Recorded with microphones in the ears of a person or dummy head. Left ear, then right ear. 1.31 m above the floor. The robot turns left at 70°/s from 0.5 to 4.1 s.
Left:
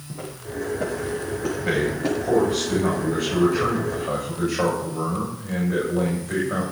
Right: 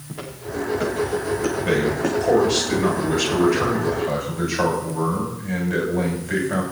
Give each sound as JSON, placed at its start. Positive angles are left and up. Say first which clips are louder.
{"t": 0.1, "sound": "footsteps", "louder": "right 3 dB", "side_deg": -35, "distance_m": 6.0}
{"t": 1.6, "sound": "a man speaking", "louder": "right 1 dB", "azimuth_deg": 0, "distance_m": 6.0}